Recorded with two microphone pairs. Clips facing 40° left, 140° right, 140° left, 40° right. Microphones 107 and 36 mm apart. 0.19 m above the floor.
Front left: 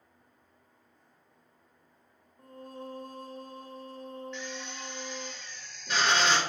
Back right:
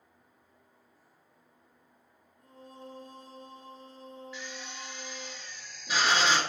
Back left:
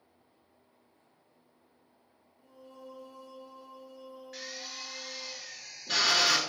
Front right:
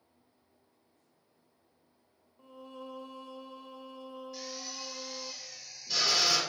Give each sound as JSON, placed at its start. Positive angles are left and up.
{"t": 2.4, "sound": "singing", "azimuth_deg": 5, "distance_m": 1.0}
{"t": 4.3, "sound": "a drill", "azimuth_deg": 130, "distance_m": 3.5}